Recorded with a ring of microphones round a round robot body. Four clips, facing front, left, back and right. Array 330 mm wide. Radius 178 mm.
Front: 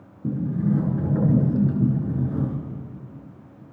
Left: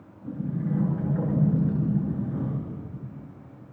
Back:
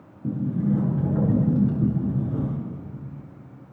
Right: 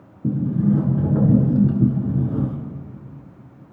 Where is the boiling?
No boiling in this recording.